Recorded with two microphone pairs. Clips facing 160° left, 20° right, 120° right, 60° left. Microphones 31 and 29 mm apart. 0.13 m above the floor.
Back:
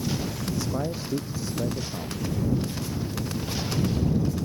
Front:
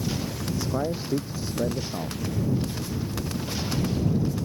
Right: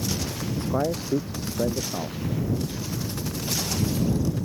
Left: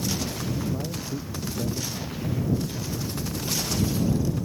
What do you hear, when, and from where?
0.6 s a man speaking: 95° right; by 2.2 s 85° right